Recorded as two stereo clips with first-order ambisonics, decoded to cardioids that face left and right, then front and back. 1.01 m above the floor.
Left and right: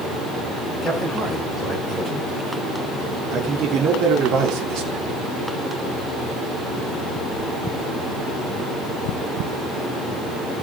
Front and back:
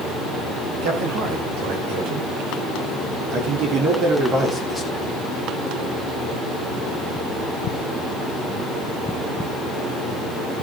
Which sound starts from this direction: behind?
A man speaking, at 0.8 s.